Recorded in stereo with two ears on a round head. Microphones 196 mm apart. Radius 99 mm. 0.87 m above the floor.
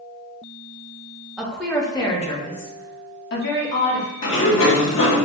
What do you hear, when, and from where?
1.4 s a woman speaking: 5° right (ahead or behind), 1.0 m; by 4.1 s 60° left (ahead or behind), 1.9 m
4.2 s a sliding door: 65° left (ahead or behind), 1.1 m